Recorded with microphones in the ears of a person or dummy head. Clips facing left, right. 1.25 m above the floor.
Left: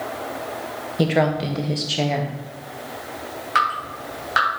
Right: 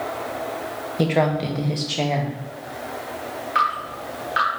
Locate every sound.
1.0 s a woman speaking: 5° left (ahead or behind), 0.8 m
3.5 s dripping: 55° left (ahead or behind), 3.5 m